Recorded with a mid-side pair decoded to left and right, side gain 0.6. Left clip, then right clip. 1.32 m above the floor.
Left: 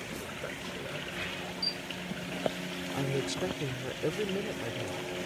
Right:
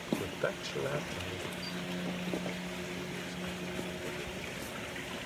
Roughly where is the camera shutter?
Ahead left.